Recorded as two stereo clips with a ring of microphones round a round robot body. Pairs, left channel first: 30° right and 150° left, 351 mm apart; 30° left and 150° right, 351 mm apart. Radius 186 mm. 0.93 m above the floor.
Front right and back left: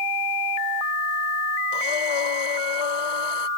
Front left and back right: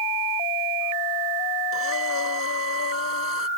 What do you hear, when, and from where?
1.7 s breathing: 25° right